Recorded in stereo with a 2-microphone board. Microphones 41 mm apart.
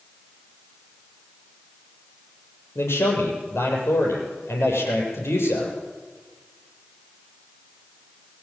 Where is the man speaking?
80° left, 7.5 m.